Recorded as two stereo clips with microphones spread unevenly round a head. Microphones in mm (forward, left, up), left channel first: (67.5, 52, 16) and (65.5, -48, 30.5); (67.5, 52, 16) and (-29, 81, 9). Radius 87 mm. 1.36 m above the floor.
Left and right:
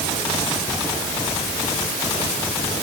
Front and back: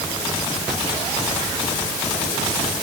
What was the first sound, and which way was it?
Only background noise.